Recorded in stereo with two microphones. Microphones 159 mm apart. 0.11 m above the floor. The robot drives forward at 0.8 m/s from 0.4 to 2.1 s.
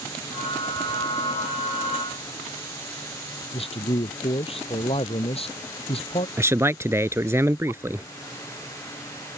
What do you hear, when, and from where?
3.5 s a man speaking: 35° left (ahead or behind)
6.4 s a man speaking: 15° right (ahead or behind)